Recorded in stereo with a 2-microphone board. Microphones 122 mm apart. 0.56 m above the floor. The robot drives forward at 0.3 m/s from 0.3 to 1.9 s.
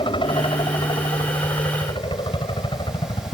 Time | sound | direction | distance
0.0 | a helicopter | 45° left (ahead or behind) | ?